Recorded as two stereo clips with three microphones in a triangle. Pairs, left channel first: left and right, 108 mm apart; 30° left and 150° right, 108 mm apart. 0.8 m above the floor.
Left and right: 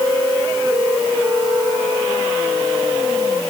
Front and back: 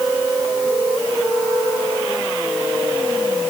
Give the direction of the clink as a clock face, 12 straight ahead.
I don't hear a clink.